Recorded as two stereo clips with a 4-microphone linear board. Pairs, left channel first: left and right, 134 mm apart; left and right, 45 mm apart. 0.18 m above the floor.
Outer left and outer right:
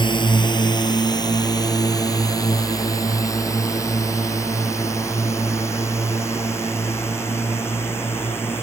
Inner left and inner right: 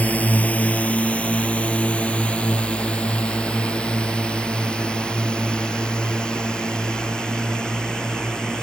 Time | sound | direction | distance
0.0 | a drone | 35° left (ahead or behind) | ?